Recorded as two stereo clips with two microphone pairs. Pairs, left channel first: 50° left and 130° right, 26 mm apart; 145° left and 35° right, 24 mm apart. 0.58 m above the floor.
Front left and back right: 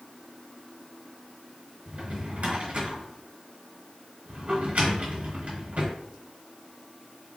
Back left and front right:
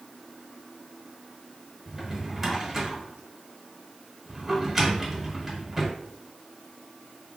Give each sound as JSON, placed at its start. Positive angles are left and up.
{"t": 1.9, "sound": "a drawer", "azimuth_deg": -110, "distance_m": 1.1}